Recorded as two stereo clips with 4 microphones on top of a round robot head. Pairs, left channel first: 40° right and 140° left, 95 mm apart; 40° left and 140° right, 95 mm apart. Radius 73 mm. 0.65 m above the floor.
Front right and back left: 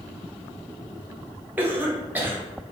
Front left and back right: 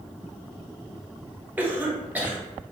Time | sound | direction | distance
1.6 | a cough | 175° left | 0.9 m